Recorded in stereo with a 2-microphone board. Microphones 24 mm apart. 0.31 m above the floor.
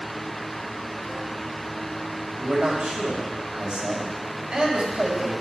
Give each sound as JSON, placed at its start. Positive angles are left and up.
{"t": 2.4, "sound": "a man speaking", "side_deg": -45, "distance_m": 1.9}